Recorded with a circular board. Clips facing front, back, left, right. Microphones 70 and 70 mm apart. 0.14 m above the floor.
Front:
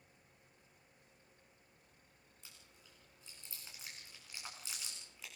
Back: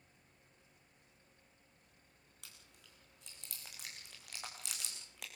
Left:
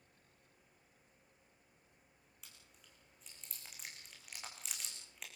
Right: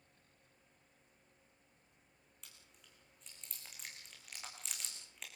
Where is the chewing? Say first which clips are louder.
Back 1 dB, even; 175° left, 8.5 m.